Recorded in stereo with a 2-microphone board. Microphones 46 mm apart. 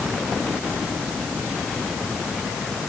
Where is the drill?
I don't hear a drill.